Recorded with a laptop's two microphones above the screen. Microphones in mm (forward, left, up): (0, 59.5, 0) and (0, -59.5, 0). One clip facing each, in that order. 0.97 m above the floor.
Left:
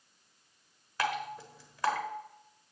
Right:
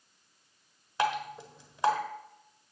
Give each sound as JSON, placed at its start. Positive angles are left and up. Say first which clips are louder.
{"t": 1.0, "sound": "dripping", "louder": "right 3 dB", "side_deg": -25, "distance_m": 1.1}